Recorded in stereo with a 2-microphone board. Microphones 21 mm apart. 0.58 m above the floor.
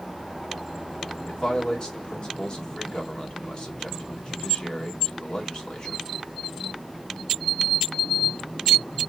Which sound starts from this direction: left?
A man speaking, at 1.3 s.